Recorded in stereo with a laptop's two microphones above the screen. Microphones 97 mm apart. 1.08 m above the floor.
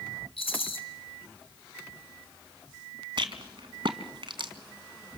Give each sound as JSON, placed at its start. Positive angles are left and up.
{"t": 0.4, "sound": "a rattle", "side_deg": 80, "distance_m": 3.0}
{"t": 3.2, "sound": "a rattle", "side_deg": -60, "distance_m": 2.0}